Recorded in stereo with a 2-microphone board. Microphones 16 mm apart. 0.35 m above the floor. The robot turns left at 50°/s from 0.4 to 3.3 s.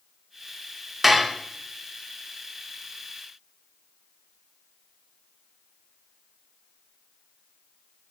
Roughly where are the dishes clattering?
Centre.